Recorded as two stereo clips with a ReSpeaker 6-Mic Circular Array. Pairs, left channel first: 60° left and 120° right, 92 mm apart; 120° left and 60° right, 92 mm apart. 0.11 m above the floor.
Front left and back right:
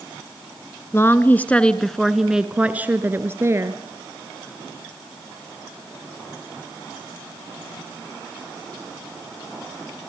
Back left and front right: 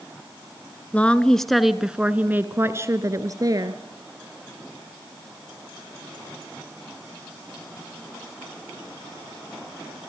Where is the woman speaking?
65° left, 1.2 m; by 3.8 s 80° right, 1.5 m.